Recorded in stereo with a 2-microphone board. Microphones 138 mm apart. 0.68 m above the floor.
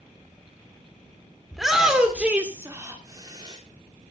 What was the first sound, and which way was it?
A shout, centre (ahead or behind).